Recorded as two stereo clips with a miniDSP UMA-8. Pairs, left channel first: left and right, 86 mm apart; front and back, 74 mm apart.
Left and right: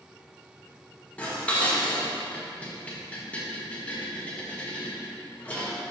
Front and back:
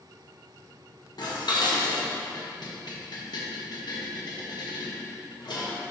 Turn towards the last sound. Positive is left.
turn(degrees=20)